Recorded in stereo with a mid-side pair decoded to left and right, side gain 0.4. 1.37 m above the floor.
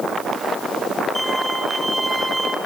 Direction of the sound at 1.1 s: 5° right.